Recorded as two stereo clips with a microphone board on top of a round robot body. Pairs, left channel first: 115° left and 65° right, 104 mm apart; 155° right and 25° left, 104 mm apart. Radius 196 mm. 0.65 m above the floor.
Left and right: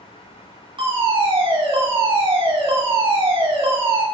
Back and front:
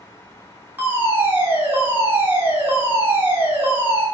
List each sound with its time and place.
0.8 s a fire alarm: 45° right, 4 m